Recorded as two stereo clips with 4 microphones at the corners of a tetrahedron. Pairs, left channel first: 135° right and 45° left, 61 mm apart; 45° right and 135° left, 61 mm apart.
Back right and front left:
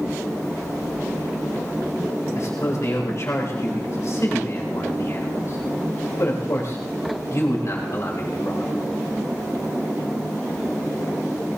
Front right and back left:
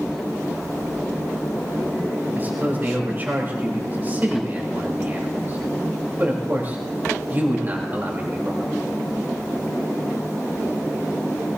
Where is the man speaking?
170° right, 3.5 m.